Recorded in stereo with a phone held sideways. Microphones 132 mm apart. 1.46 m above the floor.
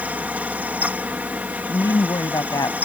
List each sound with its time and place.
0.0 s a fan: 15° right (ahead or behind)
1.7 s a woman speaking: 30° left (ahead or behind)